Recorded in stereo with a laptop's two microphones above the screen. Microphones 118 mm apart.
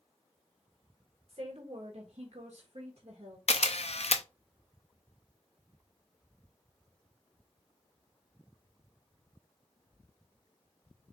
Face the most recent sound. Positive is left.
turn(degrees=60)  # may be behind; listen again after turning